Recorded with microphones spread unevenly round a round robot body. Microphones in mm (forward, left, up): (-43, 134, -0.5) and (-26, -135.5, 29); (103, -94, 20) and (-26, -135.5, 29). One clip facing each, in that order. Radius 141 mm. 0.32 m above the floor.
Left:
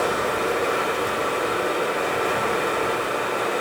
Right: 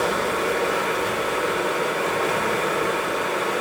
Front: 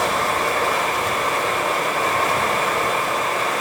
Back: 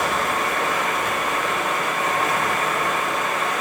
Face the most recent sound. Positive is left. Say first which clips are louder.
# even, front 2 dB
turn(degrees=10)